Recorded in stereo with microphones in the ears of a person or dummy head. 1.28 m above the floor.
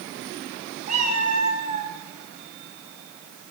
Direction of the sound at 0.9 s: 35° right (ahead or behind).